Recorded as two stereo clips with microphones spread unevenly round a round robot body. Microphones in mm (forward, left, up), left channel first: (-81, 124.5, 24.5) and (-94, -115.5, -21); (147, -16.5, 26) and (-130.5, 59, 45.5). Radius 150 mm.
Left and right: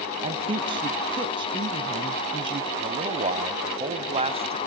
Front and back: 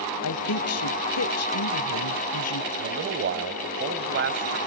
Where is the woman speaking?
30° right, 1.5 m.